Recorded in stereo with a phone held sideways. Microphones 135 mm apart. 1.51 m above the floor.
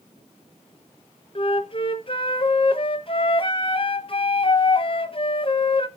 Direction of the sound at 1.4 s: 40° left (ahead or behind).